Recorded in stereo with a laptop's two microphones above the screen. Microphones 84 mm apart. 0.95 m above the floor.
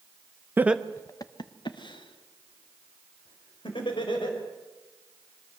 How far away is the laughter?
About 0.7 m.